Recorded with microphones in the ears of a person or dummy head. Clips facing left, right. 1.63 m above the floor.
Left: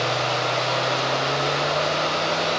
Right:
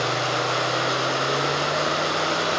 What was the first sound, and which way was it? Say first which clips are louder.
Running water: left 1 dB; 60° right (ahead or behind).